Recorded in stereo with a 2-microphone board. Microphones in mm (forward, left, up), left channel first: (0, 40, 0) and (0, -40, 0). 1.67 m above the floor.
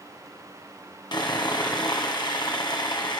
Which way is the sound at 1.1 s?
65° left (ahead or behind).